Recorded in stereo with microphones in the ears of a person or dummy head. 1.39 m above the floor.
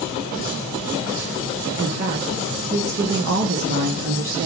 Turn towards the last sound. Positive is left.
turn(degrees=-45)  # may be behind; listen again after turning